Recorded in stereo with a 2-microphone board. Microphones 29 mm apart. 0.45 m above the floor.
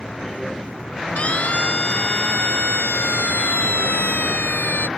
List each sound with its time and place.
1.2 s a siren: 45° left (ahead or behind); by 4.9 s 75° left (ahead or behind)